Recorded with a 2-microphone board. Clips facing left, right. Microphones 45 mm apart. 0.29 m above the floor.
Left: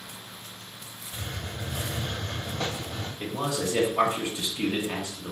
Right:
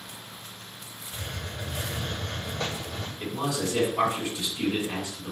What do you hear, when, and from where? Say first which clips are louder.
1.1 s a hiss: even; 15° left (ahead or behind), 2.5 m
3.2 s a man speaking: even; 30° left (ahead or behind), 1.1 m